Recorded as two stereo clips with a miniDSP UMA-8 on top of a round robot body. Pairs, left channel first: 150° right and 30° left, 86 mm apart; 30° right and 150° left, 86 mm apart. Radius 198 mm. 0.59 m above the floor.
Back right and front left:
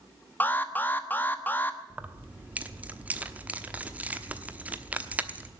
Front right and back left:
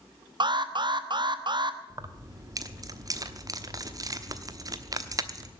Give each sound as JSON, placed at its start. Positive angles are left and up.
{"t": 0.4, "sound": "an alarm", "azimuth_deg": 145, "distance_m": 1.4}
{"t": 1.9, "sound": "keys jangling", "azimuth_deg": 100, "distance_m": 1.1}